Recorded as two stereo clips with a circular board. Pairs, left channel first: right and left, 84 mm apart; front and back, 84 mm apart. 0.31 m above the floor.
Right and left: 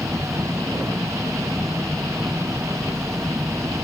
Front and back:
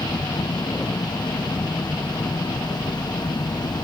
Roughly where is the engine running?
Ahead left.